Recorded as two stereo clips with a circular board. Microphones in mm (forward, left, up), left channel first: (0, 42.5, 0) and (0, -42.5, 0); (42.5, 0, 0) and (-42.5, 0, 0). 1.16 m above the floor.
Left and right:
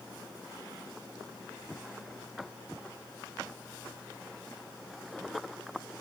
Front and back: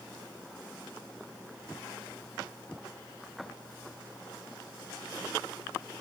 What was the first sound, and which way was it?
Only background noise.